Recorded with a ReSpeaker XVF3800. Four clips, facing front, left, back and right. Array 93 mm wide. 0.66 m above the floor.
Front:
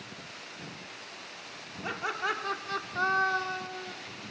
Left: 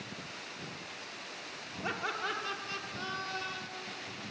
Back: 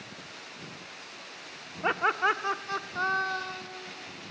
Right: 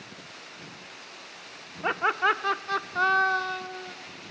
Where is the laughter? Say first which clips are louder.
Right 12 dB, back 7 dB; 135° right, 1.1 m; by 3.9 s 65° right, 1.6 m.